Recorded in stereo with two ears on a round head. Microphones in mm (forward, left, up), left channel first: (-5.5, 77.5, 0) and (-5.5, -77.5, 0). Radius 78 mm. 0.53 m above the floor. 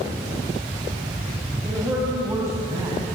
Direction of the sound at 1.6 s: 10° right (ahead or behind).